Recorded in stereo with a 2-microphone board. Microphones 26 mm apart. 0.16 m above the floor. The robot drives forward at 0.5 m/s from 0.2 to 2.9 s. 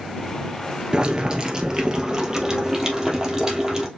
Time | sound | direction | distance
0.9 | boiling | 40° right (ahead or behind) | 1.2 m